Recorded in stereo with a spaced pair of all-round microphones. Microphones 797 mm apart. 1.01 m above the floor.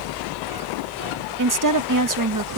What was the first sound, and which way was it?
A fan, 80° right.